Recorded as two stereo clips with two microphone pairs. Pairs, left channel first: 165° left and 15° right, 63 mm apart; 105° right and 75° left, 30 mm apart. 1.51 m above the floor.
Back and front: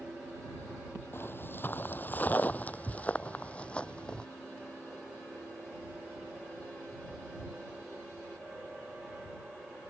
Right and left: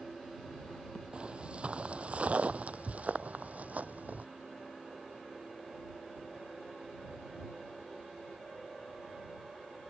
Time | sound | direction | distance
1.1 | footsteps | 120° left | ?